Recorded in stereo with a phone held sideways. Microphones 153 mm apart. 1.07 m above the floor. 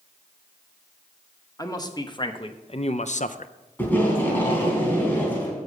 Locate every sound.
1.6 s a man speaking: 25° left (ahead or behind), 1.2 m; by 3.5 s 60° left (ahead or behind), 0.5 m
3.8 s tape being pulled: 15° left (ahead or behind), 3 m